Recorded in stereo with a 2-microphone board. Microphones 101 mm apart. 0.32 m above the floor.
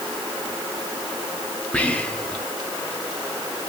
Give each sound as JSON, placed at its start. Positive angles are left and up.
{"t": 1.7, "sound": "whispering", "side_deg": 10, "distance_m": 1.2}